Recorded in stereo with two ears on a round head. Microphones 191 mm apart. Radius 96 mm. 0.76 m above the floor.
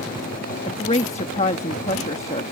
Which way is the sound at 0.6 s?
30° left (ahead or behind).